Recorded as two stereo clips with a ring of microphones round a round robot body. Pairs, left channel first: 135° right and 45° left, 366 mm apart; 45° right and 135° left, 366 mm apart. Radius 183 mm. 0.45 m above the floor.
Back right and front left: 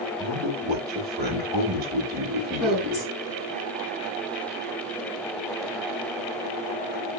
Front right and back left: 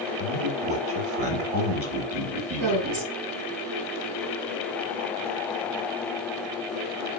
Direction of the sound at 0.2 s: 110° left.